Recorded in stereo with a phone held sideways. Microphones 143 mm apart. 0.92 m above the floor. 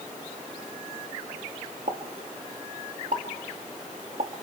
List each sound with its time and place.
1.9 s a pop: 60° right (ahead or behind), 1.6 m